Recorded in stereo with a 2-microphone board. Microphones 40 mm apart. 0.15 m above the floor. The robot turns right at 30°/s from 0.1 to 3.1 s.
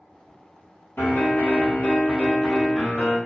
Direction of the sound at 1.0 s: 115° left.